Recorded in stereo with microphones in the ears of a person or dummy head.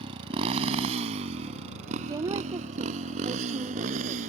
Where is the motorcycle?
30° right (ahead or behind); by 4.3 s 40° right (ahead or behind).